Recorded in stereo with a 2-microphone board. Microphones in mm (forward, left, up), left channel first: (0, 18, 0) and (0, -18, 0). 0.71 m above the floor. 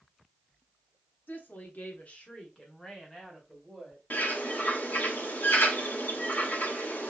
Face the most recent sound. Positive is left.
turn(degrees=60)  # may be behind; listen again after turning